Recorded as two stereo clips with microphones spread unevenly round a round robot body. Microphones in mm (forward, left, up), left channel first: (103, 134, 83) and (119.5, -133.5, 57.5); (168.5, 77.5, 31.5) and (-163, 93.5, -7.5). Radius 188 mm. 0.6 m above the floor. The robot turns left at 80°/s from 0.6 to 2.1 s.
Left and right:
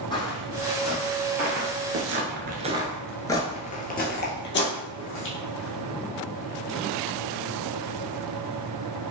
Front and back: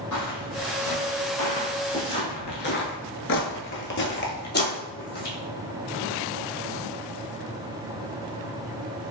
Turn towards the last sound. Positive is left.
turn(degrees=55)